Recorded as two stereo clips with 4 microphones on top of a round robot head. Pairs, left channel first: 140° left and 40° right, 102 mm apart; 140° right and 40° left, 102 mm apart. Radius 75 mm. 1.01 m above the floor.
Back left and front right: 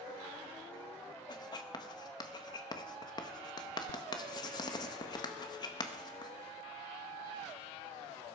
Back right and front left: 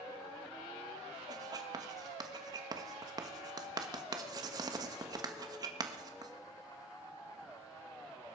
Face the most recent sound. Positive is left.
turn(degrees=90)